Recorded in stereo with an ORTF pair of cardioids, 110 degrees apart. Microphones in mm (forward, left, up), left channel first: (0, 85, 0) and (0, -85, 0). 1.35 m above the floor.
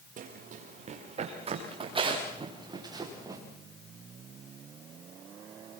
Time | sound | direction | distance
0.2 | running footsteps | 50° right | 6.5 m